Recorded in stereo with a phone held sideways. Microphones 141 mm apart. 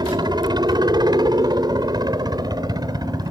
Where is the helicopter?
30° right (ahead or behind); by 3.3 s 25° right (ahead or behind).